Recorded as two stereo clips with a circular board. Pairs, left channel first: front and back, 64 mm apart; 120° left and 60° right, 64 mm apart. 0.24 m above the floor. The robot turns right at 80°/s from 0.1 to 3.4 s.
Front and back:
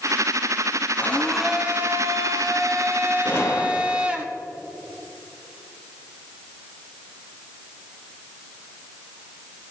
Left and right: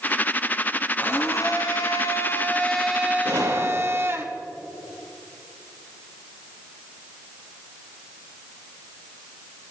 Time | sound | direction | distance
1.0 | a blender | 60° left | 0.9 m
3.2 | a gunshot | 60° right | 1.1 m